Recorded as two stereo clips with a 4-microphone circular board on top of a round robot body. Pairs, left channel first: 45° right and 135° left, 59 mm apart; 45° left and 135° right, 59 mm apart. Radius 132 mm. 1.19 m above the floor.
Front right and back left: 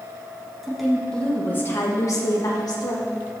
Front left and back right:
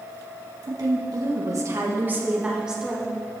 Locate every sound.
0.6 s a woman speaking: 140° right, 1.8 m; by 3.1 s 50° right, 2 m